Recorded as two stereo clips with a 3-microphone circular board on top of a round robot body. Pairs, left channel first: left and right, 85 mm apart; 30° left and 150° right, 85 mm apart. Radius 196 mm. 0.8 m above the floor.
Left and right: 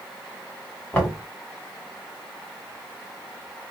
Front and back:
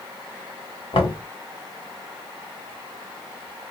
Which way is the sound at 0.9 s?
15° left.